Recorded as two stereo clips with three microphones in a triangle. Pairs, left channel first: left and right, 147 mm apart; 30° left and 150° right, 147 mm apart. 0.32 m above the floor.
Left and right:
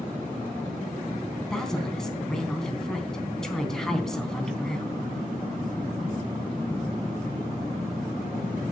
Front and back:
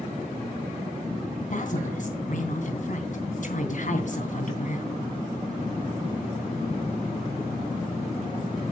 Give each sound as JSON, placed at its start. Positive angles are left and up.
{"t": 1.4, "sound": "a woman speaking", "azimuth_deg": 5, "distance_m": 3.0}